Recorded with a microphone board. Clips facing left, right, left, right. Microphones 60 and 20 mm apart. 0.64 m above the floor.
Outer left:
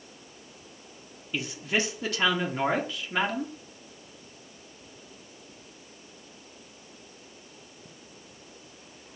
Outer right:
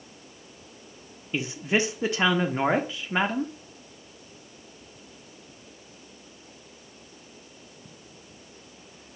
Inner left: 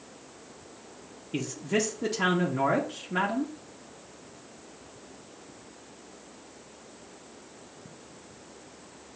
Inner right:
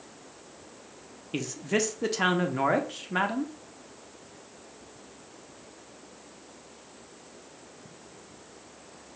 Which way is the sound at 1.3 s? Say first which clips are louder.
Outer right 3 dB, even; 20° right (ahead or behind).